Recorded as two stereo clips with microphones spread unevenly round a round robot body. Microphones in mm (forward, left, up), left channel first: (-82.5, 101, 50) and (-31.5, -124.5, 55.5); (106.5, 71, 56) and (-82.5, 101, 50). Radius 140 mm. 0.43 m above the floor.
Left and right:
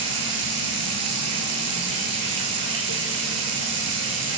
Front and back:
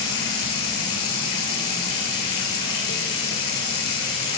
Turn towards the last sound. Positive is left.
turn(degrees=-40)